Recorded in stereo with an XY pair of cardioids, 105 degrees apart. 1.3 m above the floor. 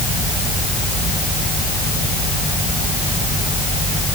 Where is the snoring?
No snoring in this recording.